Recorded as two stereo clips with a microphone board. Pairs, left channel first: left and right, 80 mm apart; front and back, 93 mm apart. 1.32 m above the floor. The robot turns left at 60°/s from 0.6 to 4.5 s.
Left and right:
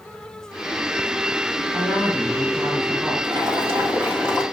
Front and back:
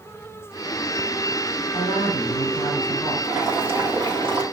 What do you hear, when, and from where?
1.7 s a woman speaking: 5° left, 3.5 m; by 3.1 s 80° right, 3.5 m
3.2 s boiling: 100° right, 2 m; by 4.4 s 170° right, 2 m